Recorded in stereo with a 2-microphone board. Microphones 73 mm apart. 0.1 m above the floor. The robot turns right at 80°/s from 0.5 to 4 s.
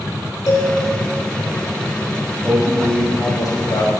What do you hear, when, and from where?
0.5 s a cowbell: 55° left (ahead or behind), 6 m; by 0.7 s 40° left (ahead or behind), 6 m
2.4 s a man speaking: 25° right, 4.5 m; by 3.9 s 95° left, 4.5 m